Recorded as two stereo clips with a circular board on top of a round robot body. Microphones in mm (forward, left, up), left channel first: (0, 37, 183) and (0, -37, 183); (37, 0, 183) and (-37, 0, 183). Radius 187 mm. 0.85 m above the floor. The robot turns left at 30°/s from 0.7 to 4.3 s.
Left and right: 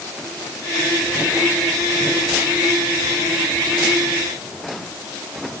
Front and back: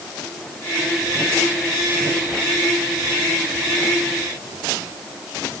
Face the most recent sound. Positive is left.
No sound to turn to.